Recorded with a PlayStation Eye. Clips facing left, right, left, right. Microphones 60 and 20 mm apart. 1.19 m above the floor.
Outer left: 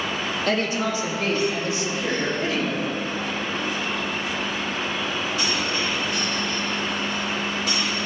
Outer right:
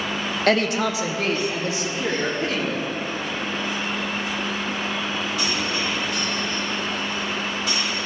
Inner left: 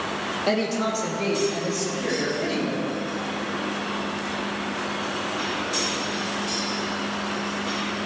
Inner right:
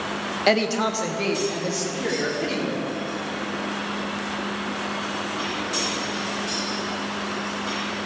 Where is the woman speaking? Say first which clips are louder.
Outer right 4 dB, inner right 4 dB; 65° right (ahead or behind), 0.8 m; by 2.8 s 75° right (ahead or behind), 4 m.